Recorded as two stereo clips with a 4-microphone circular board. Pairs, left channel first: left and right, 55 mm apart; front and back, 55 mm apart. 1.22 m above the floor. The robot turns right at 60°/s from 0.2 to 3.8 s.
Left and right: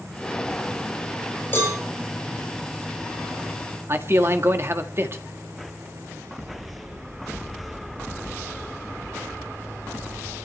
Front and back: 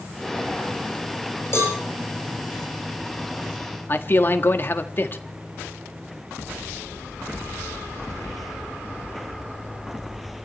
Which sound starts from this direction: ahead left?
A cowbell, at 1.5 s.